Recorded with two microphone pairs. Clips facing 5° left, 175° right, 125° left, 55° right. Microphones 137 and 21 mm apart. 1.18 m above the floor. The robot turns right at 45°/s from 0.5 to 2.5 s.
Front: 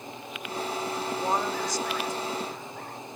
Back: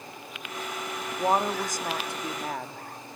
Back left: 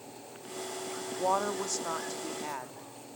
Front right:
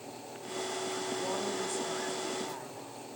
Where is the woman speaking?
120° left, 2 m; by 3.2 s straight behind, 2 m.